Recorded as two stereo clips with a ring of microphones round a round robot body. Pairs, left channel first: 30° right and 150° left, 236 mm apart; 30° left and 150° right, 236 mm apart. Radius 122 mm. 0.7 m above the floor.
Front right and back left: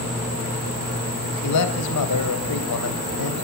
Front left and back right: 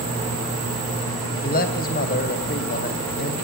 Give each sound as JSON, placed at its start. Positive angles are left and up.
{"t": 1.4, "sound": "a man speaking", "azimuth_deg": -20, "distance_m": 3.5}